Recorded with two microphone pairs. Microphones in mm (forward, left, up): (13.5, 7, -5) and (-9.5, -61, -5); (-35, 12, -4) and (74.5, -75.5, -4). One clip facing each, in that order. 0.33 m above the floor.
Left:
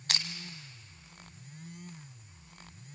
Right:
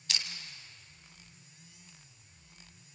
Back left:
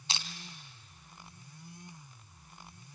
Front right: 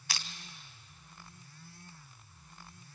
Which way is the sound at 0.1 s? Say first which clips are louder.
Left 3 dB, back left 2 dB; 80° left.